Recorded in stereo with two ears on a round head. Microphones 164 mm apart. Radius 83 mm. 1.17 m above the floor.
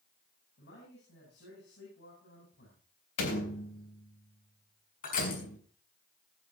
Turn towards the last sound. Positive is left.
turn(degrees=50)  # may be behind; listen again after turning